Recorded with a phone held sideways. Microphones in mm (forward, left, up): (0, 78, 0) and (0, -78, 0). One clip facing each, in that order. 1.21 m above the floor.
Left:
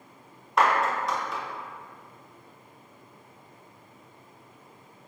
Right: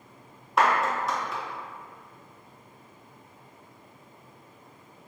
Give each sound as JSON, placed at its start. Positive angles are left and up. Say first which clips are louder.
{"t": 0.6, "sound": "a clap", "louder": "even", "side_deg": 0, "distance_m": 0.6}